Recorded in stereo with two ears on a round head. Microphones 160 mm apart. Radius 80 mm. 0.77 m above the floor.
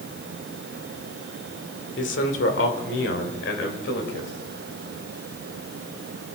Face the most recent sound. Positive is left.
turn(degrees=70)  # may be behind; listen again after turning